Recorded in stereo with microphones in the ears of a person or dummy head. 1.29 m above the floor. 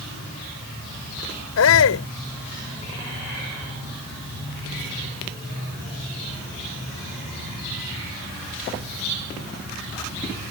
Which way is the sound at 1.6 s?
65° left (ahead or behind).